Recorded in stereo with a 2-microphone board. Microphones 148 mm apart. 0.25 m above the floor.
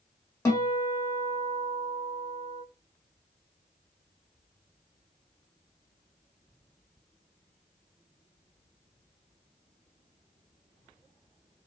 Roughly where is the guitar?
Centre.